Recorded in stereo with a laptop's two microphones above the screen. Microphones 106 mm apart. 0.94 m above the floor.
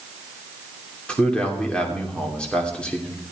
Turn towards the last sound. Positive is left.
turn(degrees=10)  # may be behind; listen again after turning